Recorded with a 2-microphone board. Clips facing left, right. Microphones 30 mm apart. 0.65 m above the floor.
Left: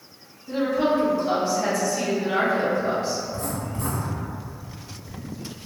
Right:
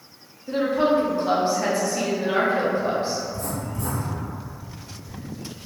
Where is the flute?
No flute in this recording.